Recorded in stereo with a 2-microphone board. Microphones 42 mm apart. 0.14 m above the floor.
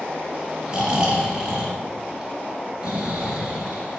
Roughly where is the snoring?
Right.